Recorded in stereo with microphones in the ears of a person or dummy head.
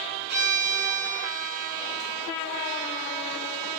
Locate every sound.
0.3 s a violin: 60° right (ahead or behind), 6.5 m